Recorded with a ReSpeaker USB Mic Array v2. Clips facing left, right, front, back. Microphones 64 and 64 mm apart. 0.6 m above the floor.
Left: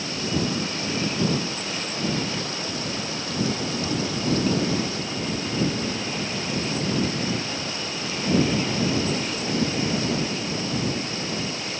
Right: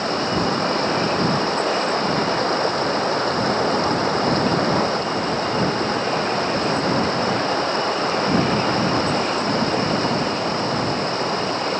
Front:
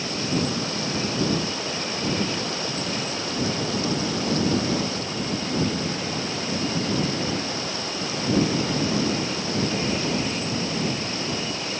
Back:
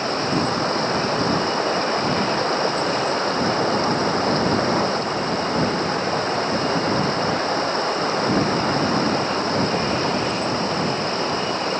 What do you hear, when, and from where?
0.0 s running water: 135° right